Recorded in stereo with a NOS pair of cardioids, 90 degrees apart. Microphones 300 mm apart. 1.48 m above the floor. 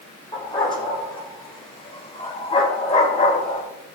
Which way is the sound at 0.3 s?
15° left.